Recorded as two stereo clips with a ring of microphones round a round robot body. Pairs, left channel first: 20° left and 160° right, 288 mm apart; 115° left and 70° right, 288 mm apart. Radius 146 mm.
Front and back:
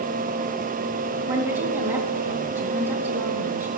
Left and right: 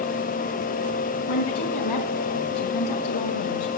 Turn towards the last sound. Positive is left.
turn(degrees=120)